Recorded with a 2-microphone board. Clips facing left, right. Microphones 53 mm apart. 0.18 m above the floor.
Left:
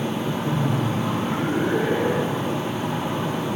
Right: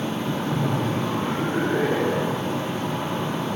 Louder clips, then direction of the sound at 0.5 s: Left 1 dB; 60° left (ahead or behind).